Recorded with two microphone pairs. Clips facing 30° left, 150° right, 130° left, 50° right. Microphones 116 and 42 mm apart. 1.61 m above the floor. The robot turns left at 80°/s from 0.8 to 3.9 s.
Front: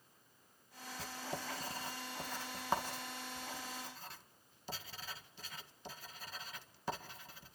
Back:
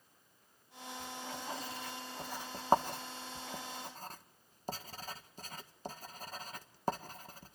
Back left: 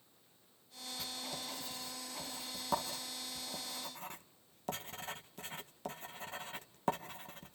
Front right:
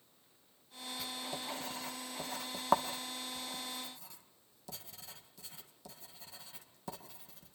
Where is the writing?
40° left, 1.6 m; by 7.6 s 165° left, 1.6 m.